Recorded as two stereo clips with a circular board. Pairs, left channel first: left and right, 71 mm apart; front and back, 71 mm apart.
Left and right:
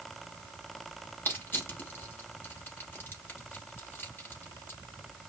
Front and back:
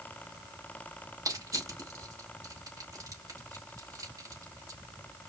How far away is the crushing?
About 2.5 m.